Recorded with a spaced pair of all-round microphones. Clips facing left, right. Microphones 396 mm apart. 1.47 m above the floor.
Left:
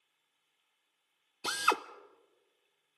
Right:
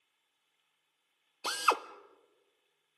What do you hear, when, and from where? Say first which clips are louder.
1.4 s a drill: even; 35° left (ahead or behind), 0.6 m